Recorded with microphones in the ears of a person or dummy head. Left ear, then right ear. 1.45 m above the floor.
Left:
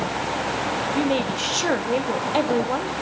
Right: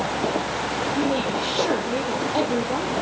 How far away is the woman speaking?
About 3 m.